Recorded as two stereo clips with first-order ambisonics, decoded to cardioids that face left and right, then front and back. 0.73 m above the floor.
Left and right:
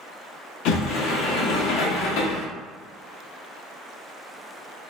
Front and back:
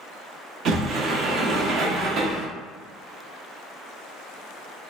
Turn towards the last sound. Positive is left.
turn(degrees=125)